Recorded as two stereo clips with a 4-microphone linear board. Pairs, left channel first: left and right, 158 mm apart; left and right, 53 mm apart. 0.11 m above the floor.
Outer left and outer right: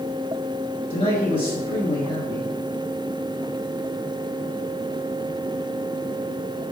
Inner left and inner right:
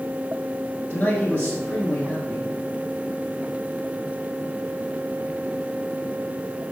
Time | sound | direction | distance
0.9 | a man speaking | 40° left (ahead or behind) | 1.7 m